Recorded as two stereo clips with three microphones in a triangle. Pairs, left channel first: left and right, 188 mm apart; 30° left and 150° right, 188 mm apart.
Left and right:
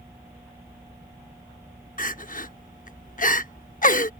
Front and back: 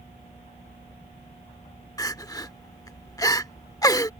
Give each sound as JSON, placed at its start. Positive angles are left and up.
{"t": 2.0, "sound": "crying", "azimuth_deg": 90}